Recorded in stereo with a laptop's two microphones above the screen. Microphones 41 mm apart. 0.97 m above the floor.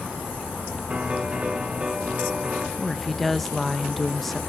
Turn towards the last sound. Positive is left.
turn(degrees=5)  # may be behind; listen again after turning